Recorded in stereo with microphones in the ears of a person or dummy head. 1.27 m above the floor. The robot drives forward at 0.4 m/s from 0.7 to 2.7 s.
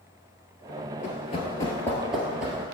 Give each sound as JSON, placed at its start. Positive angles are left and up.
{"t": 1.0, "sound": "running footsteps", "side_deg": 35, "distance_m": 1.5}